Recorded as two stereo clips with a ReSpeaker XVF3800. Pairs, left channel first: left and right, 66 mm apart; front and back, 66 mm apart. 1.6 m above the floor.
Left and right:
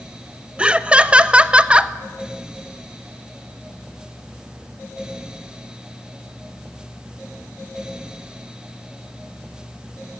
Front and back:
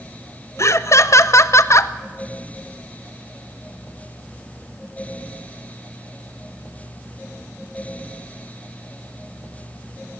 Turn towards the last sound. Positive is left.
turn(degrees=-20)